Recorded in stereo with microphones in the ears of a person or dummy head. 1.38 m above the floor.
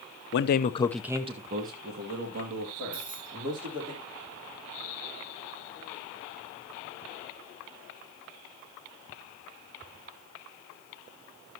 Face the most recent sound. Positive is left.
turn(degrees=-35)  # may be behind; listen again after turning